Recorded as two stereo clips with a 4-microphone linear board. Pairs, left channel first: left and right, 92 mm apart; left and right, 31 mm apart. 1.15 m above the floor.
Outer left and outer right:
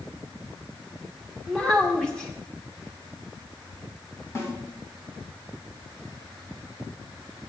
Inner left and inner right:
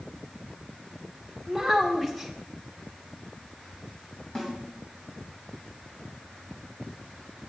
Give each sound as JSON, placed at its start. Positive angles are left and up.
{"t": 1.5, "sound": "a child speaking", "side_deg": 10, "distance_m": 1.7}
{"t": 4.3, "sound": "a snare drum", "side_deg": 35, "distance_m": 3.0}